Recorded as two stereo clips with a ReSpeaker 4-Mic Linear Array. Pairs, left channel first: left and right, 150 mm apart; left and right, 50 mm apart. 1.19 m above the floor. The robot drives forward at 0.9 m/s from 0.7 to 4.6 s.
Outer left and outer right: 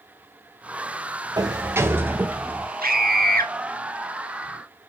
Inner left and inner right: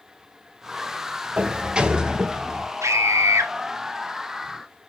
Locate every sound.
1.4 s a sliding door: 25° right (ahead or behind), 0.9 m; by 2.7 s 10° right (ahead or behind), 2.0 m
2.8 s a scream: 80° right, 1.9 m